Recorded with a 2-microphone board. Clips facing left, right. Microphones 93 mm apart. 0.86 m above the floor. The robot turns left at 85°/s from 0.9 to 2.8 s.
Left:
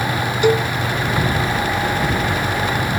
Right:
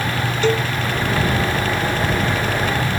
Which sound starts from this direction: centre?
A cowbell, at 0.4 s.